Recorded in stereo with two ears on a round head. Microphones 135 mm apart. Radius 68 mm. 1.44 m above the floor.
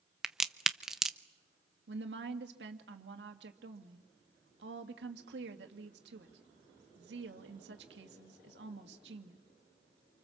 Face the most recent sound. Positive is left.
turn(degrees=-80)